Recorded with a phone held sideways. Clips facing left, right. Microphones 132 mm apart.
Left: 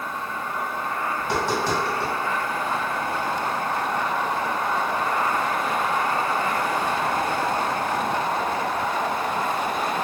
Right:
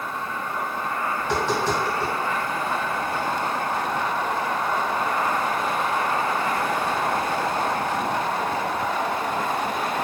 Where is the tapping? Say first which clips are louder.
Even; 10° left (ahead or behind), 1.6 m.